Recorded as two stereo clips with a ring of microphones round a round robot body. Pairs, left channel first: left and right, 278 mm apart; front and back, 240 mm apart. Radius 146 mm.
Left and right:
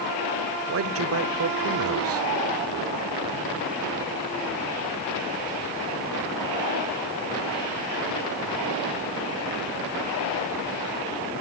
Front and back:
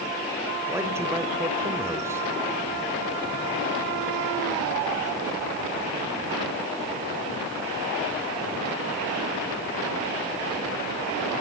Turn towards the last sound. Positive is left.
turn(degrees=-105)